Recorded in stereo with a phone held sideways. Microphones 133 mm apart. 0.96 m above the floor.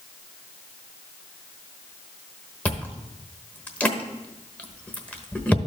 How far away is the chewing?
About 0.9 m.